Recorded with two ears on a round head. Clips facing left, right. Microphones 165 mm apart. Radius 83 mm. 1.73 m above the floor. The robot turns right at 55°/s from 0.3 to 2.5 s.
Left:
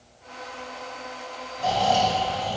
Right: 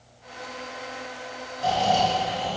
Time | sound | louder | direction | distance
1.6 | snoring | even | 170° right | 2.5 m